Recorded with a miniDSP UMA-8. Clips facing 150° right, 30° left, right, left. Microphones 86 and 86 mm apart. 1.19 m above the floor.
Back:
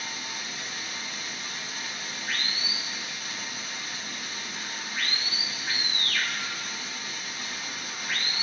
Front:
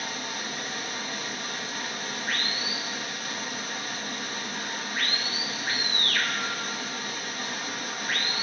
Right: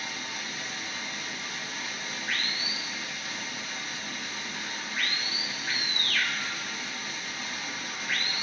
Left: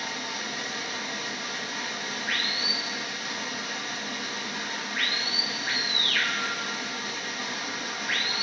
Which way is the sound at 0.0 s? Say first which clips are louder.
Front 4 dB, left 4 dB; 65° left.